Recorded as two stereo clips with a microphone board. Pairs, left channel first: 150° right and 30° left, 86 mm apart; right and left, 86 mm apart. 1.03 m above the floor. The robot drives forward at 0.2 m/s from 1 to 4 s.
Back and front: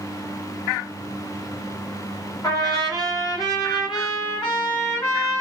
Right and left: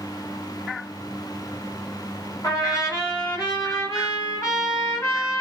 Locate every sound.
2.4 s a trumpet: 125° right, 1.3 m; by 5.4 s 135° right, 1.5 m